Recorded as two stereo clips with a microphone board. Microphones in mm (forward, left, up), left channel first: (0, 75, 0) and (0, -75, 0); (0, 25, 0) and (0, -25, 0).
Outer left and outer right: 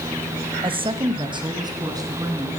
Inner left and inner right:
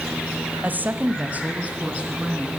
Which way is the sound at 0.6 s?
30° right (ahead or behind).